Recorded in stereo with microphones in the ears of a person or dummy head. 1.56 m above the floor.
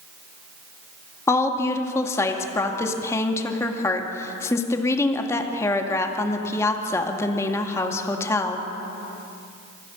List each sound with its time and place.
1.3 s a woman speaking: 15° left (ahead or behind), 2 m